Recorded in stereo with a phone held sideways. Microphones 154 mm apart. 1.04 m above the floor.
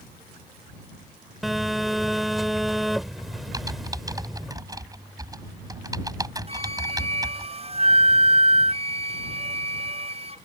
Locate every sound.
1.4 s a phone buzzing: centre (ahead or behind)
3.5 s typing on a keyboard: 20° right (ahead or behind)
6.5 s a flute: 40° right (ahead or behind)